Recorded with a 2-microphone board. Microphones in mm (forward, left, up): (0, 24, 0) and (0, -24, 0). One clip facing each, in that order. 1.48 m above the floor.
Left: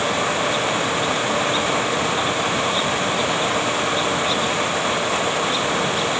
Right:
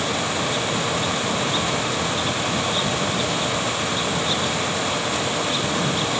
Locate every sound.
Only background noise.